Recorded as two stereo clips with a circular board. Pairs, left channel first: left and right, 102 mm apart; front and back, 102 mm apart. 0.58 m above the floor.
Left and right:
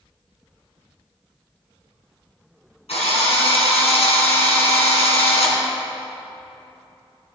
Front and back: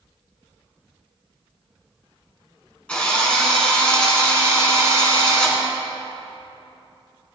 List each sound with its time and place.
2.9 s a drill: 80° left, 3.5 m